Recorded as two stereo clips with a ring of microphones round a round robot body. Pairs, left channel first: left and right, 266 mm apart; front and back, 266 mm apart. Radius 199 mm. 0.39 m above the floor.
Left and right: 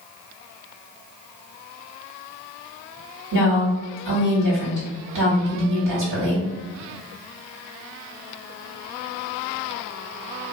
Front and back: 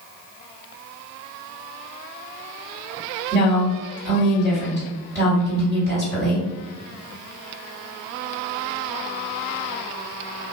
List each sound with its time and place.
3.3 s a woman speaking: 80° right, 1.7 m